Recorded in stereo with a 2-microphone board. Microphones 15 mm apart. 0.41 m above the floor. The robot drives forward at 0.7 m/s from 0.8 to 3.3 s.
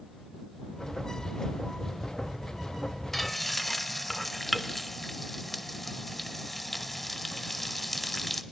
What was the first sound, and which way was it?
Frying, 10° left (ahead or behind).